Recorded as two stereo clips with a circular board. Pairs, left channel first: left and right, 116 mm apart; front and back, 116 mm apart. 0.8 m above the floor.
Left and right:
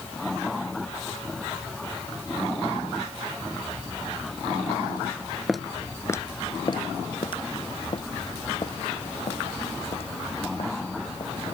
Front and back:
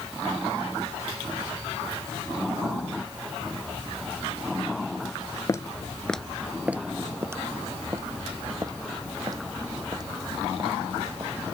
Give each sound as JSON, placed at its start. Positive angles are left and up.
{"t": 5.5, "sound": "footsteps", "azimuth_deg": -5}